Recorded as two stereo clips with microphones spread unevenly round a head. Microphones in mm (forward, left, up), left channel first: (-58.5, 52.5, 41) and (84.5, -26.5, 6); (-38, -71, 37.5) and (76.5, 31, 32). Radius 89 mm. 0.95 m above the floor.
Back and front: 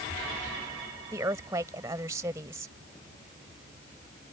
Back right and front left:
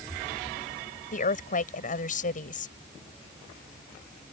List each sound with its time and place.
1.1 s a woman speaking: 100° right